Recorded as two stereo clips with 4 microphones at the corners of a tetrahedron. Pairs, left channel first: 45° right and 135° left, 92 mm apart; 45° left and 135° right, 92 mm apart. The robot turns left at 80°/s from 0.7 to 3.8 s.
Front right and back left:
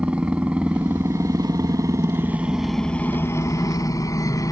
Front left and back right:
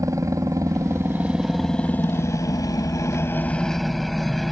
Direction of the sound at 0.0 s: 155° right.